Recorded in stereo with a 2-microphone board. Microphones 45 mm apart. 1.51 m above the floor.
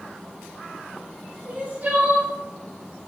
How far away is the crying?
About 2.5 m.